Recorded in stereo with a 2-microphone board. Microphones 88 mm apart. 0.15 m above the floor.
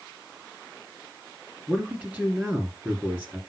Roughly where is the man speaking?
Centre.